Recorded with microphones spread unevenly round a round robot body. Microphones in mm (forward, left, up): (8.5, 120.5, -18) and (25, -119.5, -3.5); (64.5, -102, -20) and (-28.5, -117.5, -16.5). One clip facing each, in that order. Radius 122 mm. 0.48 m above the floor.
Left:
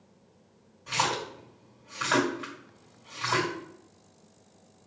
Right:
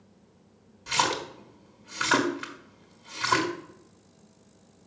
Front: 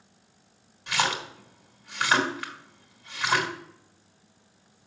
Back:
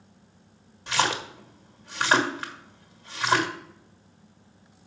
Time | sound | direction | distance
0.9 | a splash | 115° right | 1.6 m